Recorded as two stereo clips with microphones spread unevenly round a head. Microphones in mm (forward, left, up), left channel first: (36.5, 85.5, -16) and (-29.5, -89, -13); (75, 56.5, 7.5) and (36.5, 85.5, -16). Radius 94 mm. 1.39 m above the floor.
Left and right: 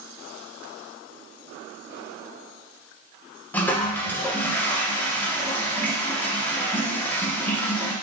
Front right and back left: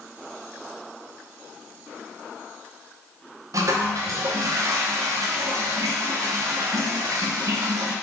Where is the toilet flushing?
145° left, 0.5 m.